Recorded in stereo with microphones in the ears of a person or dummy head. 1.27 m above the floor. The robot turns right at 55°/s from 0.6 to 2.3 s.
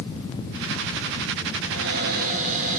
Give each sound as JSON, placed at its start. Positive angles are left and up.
{"t": 1.7, "sound": "a cupboard door", "azimuth_deg": -80, "distance_m": 3.0}